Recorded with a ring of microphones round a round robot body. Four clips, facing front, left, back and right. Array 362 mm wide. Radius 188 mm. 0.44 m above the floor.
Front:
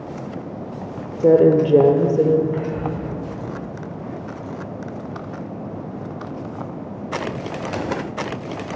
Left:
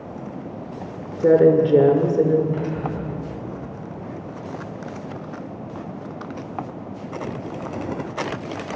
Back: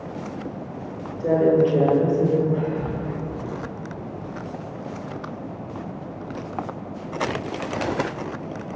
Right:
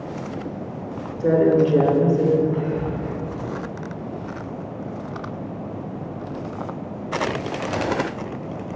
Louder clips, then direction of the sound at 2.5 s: Right 2 dB, front 1 dB; 10° left.